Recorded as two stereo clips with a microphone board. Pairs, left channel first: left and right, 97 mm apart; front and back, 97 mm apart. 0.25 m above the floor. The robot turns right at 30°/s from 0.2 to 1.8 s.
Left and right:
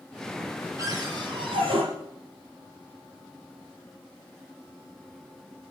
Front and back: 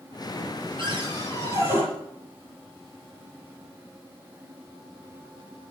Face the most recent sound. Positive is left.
turn(degrees=-115)